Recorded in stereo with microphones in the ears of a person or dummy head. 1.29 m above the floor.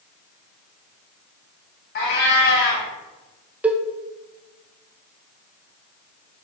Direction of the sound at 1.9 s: 50° left (ahead or behind).